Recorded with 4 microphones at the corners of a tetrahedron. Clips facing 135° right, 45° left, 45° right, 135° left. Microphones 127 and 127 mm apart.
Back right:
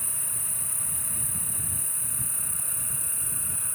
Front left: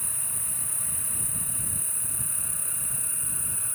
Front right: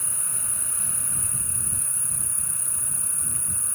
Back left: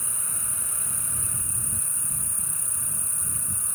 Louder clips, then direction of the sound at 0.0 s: Even, even; 155° right.